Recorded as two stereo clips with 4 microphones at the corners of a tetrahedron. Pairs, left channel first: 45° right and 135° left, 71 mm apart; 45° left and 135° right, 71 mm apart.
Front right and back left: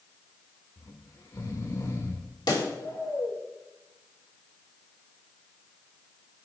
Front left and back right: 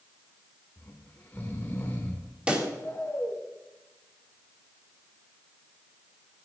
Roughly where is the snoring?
Ahead.